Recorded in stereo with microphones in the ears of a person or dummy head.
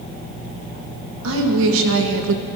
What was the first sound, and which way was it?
A woman speaking, 80° right.